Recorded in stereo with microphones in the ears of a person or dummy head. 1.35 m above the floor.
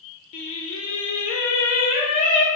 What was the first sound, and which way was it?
Singing, 40° left (ahead or behind).